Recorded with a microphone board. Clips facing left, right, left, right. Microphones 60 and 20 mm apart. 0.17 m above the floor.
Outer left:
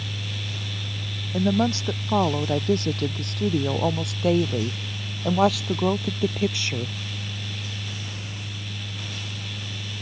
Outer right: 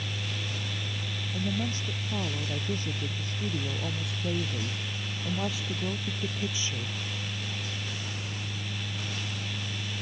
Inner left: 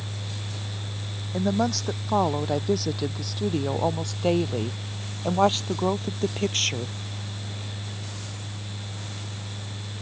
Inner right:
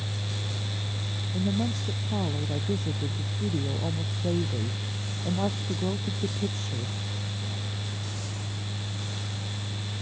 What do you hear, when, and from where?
1.3 s a woman speaking: 80° left; by 7.0 s 65° left (ahead or behind)